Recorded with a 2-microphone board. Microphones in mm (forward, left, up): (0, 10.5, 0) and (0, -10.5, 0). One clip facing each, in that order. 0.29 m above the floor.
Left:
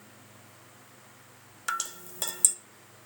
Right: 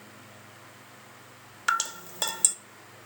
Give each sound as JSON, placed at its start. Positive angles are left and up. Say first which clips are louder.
{"t": 1.7, "sound": "dripping", "louder": "right 6 dB", "side_deg": -20, "distance_m": 0.9}